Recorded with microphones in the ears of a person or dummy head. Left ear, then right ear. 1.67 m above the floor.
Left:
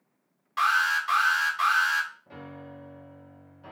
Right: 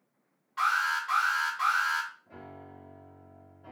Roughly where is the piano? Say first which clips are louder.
Left 4 dB; left.